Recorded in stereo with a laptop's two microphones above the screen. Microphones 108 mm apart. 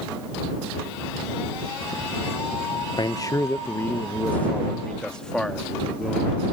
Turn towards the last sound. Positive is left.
turn(degrees=5)  # may be behind; listen again after turning